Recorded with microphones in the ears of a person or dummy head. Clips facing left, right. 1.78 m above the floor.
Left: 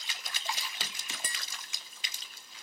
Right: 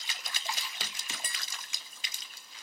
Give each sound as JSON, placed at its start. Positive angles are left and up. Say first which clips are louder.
{"t": 1.2, "sound": "tapping", "louder": "left 1 dB", "side_deg": 60, "distance_m": 1.5}